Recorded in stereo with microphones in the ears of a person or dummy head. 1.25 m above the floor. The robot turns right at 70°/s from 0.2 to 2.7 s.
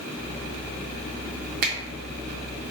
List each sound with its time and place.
1.6 s a finger snap: 55° right (ahead or behind), 0.5 m; by 1.7 s 50° right (ahead or behind), 0.5 m